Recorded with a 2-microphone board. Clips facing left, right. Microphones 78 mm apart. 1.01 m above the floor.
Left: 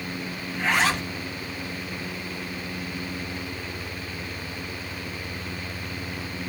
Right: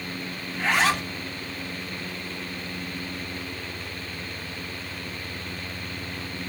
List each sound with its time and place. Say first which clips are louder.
0.5 s a zipper: right 1 dB; centre (ahead or behind), 1.0 m